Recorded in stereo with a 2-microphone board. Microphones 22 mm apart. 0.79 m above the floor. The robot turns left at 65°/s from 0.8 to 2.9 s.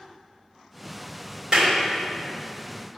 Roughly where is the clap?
Right.